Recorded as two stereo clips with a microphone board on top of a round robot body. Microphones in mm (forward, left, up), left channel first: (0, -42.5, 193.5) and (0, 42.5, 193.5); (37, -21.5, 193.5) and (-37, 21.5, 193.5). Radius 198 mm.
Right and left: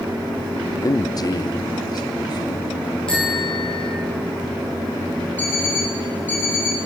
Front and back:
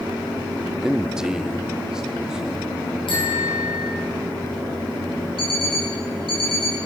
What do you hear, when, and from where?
0.8 s a man speaking: 130° right, 1.0 m
3.1 s a bicycle bell: 10° right, 6.5 m
5.4 s an alarm clock: 20° right, 8.5 m